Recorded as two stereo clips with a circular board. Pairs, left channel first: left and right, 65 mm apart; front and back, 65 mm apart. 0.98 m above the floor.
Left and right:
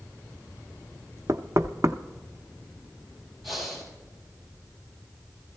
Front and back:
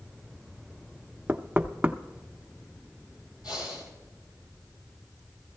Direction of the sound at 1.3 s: 110° right.